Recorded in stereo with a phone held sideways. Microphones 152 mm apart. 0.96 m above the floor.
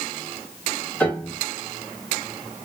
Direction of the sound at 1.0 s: 10° left (ahead or behind).